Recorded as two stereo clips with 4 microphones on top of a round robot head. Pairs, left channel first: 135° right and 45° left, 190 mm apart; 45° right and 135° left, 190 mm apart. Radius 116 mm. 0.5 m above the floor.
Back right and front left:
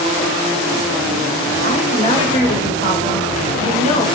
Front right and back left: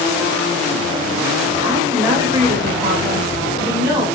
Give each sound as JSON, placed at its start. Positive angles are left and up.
{"t": 1.6, "sound": "a woman speaking", "azimuth_deg": -170, "distance_m": 1.4}